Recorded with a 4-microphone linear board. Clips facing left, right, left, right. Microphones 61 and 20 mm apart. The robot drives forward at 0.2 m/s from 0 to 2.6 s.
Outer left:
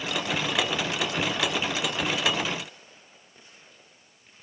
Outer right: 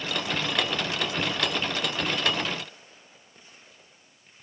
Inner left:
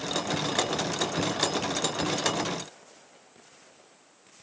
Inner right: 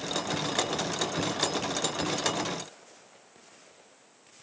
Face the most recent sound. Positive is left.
No sound to turn to.